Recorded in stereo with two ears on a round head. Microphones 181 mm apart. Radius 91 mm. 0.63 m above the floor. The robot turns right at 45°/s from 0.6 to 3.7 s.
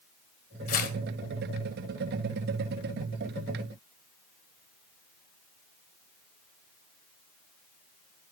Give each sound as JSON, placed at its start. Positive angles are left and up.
{"t": 0.7, "sound": "tearing paper", "side_deg": 40, "distance_m": 2.0}